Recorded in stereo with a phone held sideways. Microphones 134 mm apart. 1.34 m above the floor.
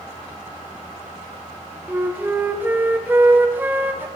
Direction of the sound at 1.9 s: 15° right (ahead or behind).